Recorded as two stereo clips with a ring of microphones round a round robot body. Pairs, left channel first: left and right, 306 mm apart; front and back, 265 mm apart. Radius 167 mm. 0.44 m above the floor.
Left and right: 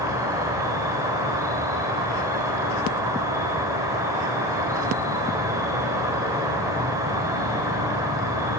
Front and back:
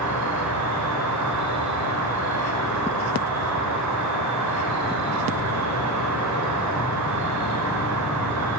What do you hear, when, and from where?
0.0 s an insect: 170° right, 1.3 m